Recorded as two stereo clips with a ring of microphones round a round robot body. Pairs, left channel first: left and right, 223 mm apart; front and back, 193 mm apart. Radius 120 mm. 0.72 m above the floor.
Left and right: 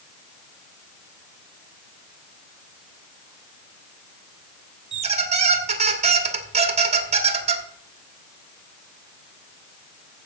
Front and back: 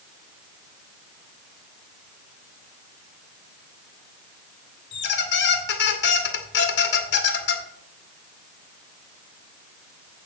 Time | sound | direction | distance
4.9 | a squeak | 30° right | 1.2 m